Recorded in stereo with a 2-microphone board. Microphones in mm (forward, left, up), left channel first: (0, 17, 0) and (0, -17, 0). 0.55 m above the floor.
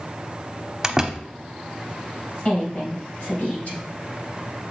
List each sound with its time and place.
0.8 s a door slam: 15° right (ahead or behind), 0.8 m
2.5 s a woman speaking: 40° left (ahead or behind), 4 m